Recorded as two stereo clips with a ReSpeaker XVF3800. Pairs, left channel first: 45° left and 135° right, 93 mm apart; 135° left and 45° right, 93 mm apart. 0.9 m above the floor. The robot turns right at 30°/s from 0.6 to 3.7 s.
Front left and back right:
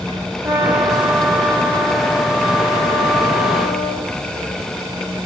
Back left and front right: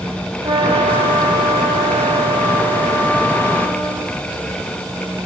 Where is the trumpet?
75° right, 6 m; by 4.1 s 20° left, 6 m.